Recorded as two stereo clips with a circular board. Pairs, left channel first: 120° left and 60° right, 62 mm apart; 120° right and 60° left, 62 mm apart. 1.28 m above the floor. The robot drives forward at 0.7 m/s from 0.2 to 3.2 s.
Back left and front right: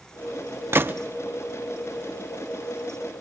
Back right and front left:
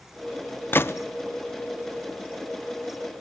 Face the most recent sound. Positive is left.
turn(degrees=-165)